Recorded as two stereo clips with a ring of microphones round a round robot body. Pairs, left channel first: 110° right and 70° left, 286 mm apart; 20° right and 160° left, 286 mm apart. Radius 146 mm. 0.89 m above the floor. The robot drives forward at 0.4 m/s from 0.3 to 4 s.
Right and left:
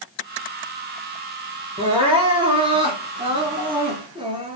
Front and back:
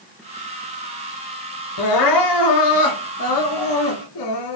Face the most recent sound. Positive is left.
turn(degrees=-5)